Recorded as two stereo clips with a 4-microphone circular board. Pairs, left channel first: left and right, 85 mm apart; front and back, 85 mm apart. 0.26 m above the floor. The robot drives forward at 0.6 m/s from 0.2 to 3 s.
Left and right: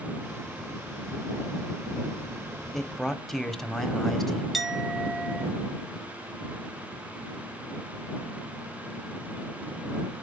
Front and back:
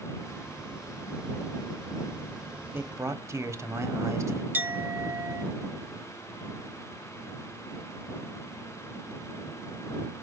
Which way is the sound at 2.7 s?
170° left.